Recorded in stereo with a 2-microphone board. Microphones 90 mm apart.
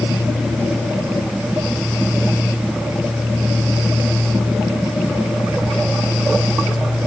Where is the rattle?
I don't hear a rattle.